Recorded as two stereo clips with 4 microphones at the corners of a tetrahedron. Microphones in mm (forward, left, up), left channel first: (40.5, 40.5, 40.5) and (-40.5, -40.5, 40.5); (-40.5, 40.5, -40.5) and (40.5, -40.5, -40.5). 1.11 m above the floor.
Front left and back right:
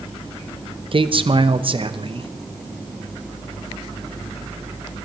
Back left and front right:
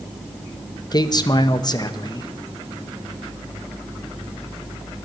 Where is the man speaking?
175° right, 0.9 m.